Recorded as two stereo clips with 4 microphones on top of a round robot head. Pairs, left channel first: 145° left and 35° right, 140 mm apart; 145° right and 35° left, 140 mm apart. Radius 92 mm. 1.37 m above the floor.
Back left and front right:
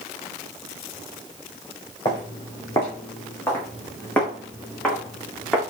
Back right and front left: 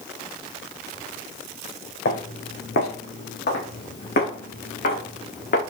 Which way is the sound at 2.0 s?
150° right.